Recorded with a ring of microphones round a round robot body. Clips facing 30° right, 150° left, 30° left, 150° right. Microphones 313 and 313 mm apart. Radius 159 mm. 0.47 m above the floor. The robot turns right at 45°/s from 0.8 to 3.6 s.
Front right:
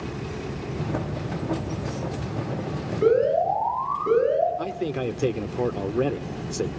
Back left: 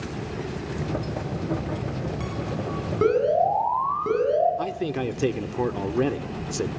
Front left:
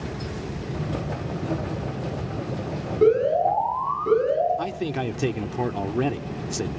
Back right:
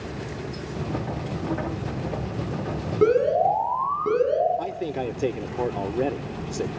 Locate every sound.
3.0 s an alarm: 150° left, 8 m; by 4.5 s 175° left, 8 m
4.6 s a man speaking: 75° left, 1.2 m